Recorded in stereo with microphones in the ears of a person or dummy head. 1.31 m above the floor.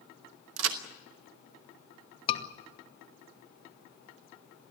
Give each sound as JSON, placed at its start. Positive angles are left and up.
{"t": 0.6, "sound": "a crack", "side_deg": -80, "distance_m": 1.8}
{"t": 2.3, "sound": "a scream", "side_deg": 30, "distance_m": 3.0}